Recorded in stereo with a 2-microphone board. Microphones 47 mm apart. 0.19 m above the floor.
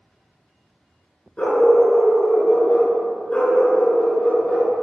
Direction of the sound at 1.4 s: 25° left (ahead or behind).